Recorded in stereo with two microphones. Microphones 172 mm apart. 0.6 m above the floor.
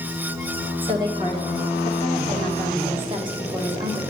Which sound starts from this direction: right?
A woman speaking, at 0.8 s.